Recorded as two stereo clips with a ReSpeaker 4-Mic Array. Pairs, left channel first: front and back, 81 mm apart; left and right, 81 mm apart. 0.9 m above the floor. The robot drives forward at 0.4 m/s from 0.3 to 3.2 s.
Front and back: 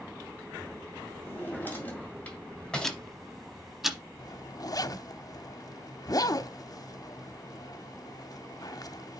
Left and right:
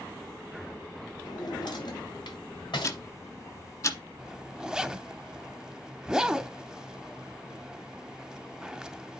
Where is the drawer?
60° left, 2 m; by 3.0 s 80° left, 1.9 m.